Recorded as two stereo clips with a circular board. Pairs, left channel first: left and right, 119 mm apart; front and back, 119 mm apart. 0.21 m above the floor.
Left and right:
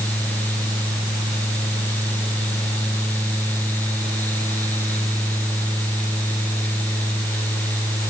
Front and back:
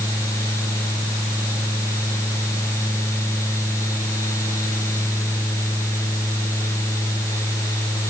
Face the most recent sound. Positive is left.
No sound to turn to.